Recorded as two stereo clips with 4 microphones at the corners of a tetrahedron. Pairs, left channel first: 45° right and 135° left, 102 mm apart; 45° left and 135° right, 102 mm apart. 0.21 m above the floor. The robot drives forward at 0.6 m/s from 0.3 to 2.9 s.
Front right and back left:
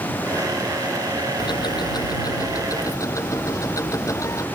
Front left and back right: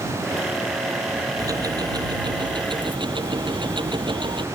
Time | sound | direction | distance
1.4 | ticking | 80° right | ?